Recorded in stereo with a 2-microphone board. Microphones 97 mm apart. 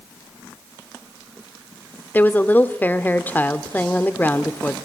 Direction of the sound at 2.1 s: 20° left (ahead or behind).